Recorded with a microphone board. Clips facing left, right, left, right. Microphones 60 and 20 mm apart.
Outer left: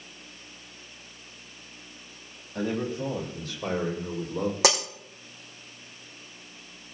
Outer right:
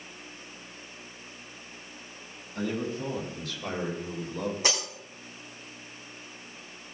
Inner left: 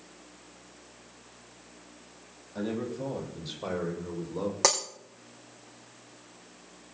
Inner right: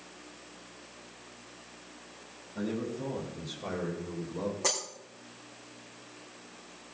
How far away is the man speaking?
About 7 m.